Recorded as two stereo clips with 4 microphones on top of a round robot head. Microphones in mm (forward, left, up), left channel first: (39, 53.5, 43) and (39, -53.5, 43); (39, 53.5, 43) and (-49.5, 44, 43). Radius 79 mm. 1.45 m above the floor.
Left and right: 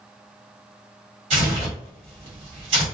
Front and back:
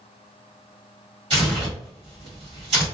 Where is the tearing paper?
125° right, 1.6 m.